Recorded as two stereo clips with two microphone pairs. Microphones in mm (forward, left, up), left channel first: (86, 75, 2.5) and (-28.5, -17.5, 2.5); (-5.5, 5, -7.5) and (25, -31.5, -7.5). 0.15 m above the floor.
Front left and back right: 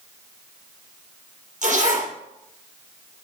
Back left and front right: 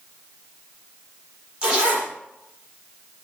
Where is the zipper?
115° right, 5 m.